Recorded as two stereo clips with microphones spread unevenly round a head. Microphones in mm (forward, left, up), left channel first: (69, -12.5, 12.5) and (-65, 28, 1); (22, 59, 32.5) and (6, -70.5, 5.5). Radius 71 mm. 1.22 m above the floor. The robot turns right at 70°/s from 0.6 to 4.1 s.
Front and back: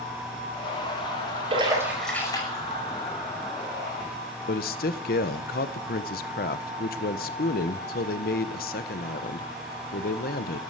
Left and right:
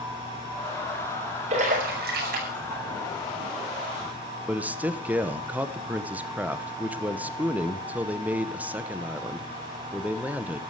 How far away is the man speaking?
About 1.1 m.